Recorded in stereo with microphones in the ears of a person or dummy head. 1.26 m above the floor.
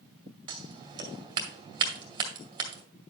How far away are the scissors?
About 2 m.